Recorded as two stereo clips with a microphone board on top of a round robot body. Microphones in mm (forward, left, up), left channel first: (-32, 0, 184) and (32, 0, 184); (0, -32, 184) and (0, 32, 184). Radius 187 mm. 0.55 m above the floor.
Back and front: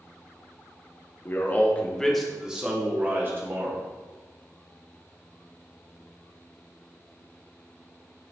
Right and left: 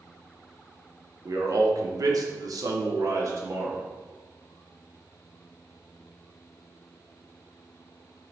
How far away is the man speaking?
About 1.5 m.